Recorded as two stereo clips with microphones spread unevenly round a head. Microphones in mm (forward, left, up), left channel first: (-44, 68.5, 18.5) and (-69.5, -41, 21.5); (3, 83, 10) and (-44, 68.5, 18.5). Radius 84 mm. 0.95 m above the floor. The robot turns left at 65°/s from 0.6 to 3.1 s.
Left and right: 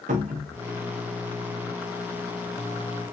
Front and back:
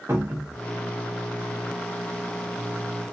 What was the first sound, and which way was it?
A cupboard door, 95° right.